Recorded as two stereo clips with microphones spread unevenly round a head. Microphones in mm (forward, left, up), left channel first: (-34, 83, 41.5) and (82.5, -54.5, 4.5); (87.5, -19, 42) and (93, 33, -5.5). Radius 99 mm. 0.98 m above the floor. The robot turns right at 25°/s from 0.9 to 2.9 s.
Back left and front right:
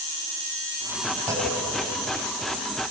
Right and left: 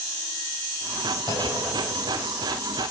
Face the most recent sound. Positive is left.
turn(degrees=-90)